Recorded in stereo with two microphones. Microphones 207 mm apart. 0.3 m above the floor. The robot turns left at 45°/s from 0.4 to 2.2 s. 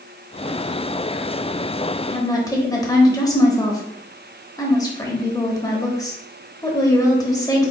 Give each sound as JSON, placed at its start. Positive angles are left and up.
{"t": 2.1, "sound": "a woman speaking", "side_deg": 20, "distance_m": 1.0}